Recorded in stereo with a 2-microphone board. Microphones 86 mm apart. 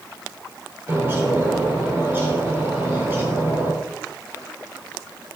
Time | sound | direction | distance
0.9 | a bird | 30° right (ahead or behind) | 3.5 m